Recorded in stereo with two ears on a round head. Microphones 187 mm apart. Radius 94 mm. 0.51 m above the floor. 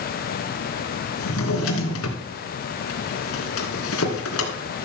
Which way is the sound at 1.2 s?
75° left (ahead or behind).